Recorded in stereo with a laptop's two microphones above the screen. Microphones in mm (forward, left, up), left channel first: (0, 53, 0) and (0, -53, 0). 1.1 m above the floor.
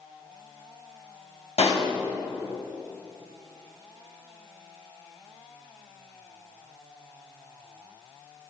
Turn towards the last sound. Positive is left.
turn(degrees=80)